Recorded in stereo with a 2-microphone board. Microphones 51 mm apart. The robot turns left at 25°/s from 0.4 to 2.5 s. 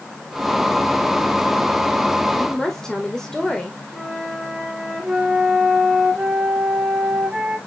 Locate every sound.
2.4 s a woman speaking: 15° left (ahead or behind), 1.6 m; by 3.8 s 10° left (ahead or behind), 1.6 m
3.9 s a flute: 15° right (ahead or behind), 3 m